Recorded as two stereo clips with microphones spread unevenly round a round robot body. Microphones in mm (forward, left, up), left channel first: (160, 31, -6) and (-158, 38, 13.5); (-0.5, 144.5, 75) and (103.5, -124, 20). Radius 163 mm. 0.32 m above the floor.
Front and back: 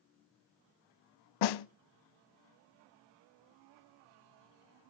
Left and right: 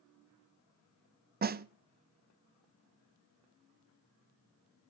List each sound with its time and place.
1.4 s a snare drum: 10° right, 0.5 m